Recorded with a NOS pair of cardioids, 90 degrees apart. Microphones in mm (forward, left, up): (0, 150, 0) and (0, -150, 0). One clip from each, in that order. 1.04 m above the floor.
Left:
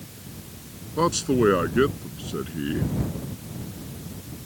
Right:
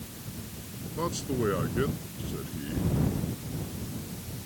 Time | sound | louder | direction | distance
1.0 | a man speaking | left 10 dB | 65° left | ?